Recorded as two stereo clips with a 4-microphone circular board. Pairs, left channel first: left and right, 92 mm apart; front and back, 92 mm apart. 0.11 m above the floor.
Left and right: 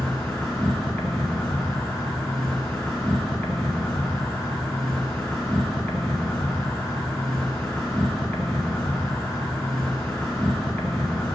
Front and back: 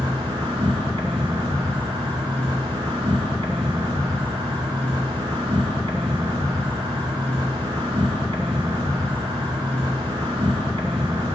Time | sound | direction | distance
0.0 | an insect | 155° left | 1.8 m